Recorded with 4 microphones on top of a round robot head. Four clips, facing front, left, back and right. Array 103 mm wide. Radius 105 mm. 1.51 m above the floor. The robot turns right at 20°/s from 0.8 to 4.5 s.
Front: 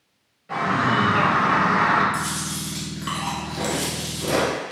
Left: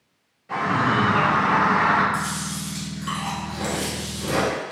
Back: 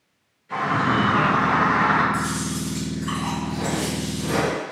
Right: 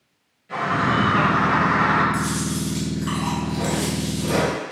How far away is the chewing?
About 0.9 m.